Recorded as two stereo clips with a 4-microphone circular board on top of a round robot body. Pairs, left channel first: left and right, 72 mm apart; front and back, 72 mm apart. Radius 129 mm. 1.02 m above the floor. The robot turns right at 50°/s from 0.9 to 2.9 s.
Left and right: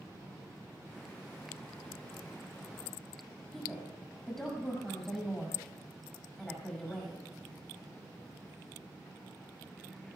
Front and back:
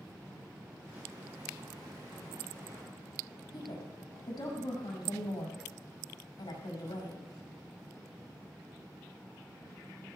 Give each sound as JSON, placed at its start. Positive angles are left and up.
{"t": 3.5, "sound": "a woman speaking", "azimuth_deg": 5, "distance_m": 6.5}